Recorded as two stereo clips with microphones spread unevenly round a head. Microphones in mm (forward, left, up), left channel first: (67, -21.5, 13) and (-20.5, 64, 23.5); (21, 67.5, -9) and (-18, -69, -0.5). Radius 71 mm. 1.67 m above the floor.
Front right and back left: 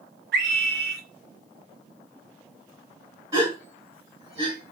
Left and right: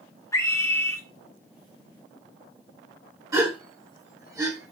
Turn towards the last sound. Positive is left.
turn(degrees=-165)